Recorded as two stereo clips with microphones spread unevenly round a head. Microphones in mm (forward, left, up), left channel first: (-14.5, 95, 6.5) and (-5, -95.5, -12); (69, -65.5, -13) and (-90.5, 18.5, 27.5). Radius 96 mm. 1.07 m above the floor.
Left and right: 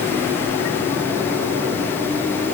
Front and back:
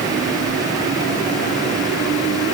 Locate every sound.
Only background noise.